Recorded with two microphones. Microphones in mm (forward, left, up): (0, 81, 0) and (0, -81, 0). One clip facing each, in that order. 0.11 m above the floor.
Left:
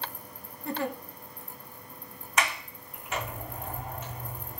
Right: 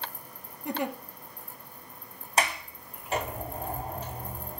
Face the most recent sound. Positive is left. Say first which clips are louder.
# right 2 dB
turn(degrees=-30)  # may be behind; listen again after turning